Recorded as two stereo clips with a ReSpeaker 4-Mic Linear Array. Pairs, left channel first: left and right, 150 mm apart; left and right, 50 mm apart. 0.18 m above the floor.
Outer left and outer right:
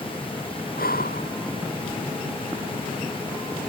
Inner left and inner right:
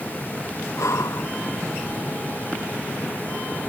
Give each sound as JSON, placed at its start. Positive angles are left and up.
{"t": 0.8, "sound": "breathing", "side_deg": 85}